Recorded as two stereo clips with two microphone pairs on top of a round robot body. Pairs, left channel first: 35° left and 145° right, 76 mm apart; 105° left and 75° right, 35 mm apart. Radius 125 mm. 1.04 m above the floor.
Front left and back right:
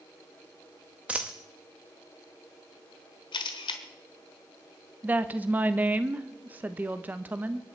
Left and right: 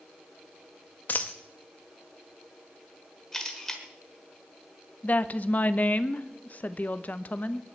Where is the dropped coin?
140° left, 0.6 m.